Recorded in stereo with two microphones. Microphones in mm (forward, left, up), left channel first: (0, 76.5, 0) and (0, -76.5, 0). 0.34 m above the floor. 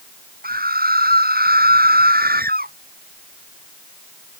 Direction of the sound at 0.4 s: 75° right (ahead or behind).